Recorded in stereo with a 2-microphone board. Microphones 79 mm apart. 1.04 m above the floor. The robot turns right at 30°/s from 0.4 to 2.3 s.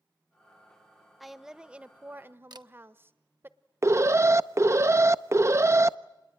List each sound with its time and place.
1.2 s a woman speaking: straight behind, 1.1 m; by 3.5 s 145° right, 1.1 m
2.5 s a camera shutter: 65° right (ahead or behind), 0.9 m
3.8 s an alarm: 35° right (ahead or behind), 0.6 m